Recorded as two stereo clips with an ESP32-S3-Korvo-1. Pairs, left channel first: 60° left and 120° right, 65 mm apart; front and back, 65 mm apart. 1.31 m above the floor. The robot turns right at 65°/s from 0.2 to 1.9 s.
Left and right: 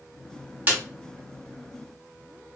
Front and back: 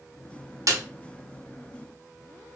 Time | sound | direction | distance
0.7 | a snare drum | 175° right | 0.6 m